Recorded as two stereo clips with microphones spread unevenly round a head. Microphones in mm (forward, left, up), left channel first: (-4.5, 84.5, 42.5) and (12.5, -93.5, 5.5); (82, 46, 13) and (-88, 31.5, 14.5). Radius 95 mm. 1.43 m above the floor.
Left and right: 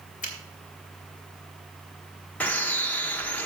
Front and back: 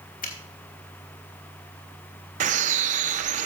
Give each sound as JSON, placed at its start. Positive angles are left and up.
{"t": 0.2, "sound": "a finger snap", "azimuth_deg": 45, "distance_m": 3.0}
{"t": 2.4, "sound": "a bird", "azimuth_deg": 160, "distance_m": 0.5}